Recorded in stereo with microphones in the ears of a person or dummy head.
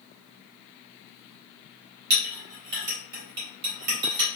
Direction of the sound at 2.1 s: 65° right (ahead or behind).